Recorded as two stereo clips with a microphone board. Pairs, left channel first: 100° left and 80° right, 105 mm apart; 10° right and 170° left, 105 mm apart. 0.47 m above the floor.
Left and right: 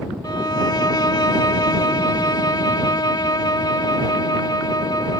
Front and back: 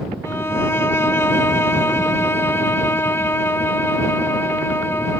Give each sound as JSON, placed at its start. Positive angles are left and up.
{"t": 0.2, "sound": "a violin", "azimuth_deg": 55}